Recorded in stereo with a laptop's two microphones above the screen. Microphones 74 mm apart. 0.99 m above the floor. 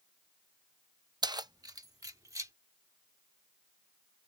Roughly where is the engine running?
I don't hear an engine running.